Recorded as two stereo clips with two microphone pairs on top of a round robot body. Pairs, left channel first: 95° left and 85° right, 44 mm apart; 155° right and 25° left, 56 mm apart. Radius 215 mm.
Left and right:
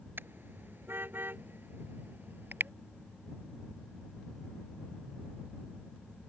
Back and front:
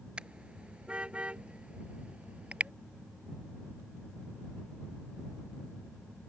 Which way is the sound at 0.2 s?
50° right.